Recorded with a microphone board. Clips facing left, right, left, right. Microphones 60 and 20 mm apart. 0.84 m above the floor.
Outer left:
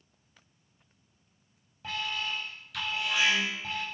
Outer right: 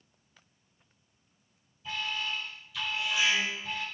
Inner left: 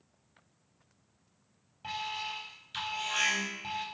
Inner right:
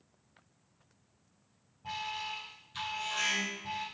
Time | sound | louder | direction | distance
1.8 | an alarm | outer left 1 dB, inner left 1 dB | 80° left | 7.5 m